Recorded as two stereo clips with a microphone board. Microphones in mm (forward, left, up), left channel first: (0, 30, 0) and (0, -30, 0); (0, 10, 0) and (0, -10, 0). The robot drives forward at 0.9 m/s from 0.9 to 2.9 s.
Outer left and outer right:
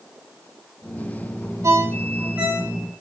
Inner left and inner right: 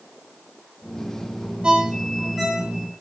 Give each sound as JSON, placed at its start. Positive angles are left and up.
{"t": 1.6, "sound": "a ringtone", "side_deg": -55, "distance_m": 0.5}